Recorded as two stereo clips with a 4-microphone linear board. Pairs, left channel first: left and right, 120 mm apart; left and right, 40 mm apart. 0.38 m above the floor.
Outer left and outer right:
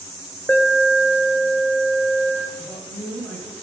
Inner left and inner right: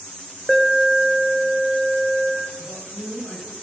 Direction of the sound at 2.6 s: 15° left (ahead or behind).